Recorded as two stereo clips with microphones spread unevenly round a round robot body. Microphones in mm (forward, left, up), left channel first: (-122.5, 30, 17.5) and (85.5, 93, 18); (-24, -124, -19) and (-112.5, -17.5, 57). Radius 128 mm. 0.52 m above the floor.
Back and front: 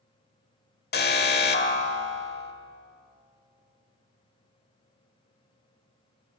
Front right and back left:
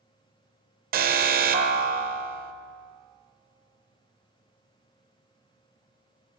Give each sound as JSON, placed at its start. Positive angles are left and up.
{"t": 0.9, "sound": "an alarm", "azimuth_deg": 155, "distance_m": 1.3}